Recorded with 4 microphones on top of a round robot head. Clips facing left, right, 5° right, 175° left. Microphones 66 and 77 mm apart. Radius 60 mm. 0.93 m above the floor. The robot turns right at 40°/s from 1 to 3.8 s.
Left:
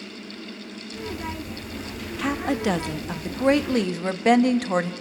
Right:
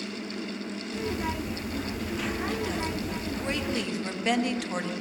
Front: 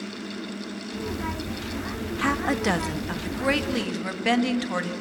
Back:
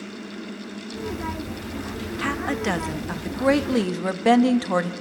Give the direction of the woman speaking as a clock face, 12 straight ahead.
10 o'clock.